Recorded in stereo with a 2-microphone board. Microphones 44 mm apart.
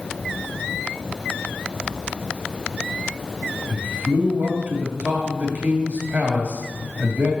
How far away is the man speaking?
About 2.5 m.